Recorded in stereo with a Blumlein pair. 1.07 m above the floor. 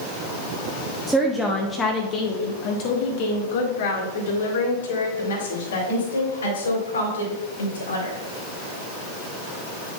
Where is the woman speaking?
10° right, 1.0 m; by 8.1 s 75° left, 4.5 m.